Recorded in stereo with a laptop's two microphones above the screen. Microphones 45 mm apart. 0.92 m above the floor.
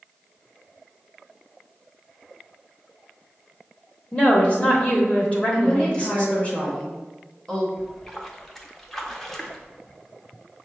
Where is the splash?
5° left (ahead or behind), 0.6 m.